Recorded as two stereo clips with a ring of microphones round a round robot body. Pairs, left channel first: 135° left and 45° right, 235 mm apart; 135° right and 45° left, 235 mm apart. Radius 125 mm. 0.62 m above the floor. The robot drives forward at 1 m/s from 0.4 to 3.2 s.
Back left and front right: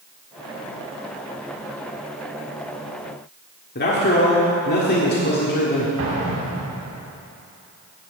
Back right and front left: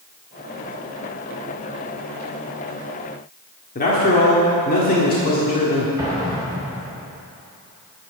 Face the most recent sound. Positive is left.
turn(degrees=-30)